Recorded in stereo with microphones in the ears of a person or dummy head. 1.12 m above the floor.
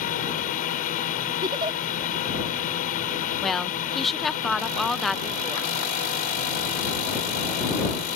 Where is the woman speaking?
Centre (ahead or behind).